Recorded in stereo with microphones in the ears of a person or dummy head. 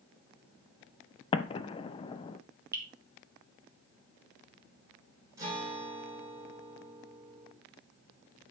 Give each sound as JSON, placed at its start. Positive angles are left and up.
{"t": 1.3, "sound": "an explosion", "side_deg": 25, "distance_m": 0.6}
{"t": 2.7, "sound": "dripping", "side_deg": -20, "distance_m": 2.0}
{"t": 5.4, "sound": "a guitar", "side_deg": -20, "distance_m": 4.0}